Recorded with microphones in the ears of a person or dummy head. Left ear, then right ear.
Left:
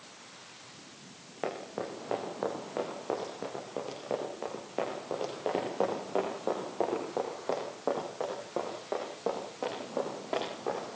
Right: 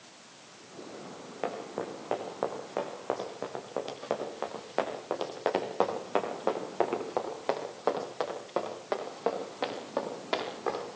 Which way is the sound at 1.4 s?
10° right (ahead or behind).